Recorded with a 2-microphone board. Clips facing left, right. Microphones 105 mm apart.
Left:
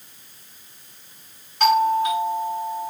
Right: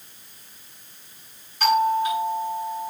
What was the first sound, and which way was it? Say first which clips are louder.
A doorbell: left 2 dB; 70° left (ahead or behind).